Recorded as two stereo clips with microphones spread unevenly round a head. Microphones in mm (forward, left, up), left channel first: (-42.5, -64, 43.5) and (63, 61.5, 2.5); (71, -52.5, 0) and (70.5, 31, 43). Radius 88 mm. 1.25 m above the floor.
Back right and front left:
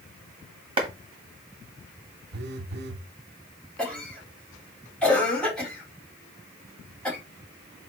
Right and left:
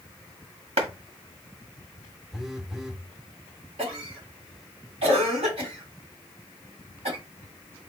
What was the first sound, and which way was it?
A clap, 110° left.